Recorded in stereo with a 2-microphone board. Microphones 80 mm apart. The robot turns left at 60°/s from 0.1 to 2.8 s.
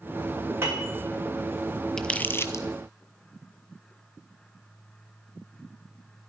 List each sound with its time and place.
0.6 s a piano: 30° right (ahead or behind), 5 m; by 0.9 s 10° right (ahead or behind), 5 m
2.0 s crumpling: 10° left (ahead or behind), 0.7 m; by 2.6 s 45° left (ahead or behind), 0.7 m